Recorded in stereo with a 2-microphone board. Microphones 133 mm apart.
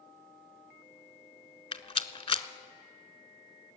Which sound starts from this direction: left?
A rattle, at 1.7 s.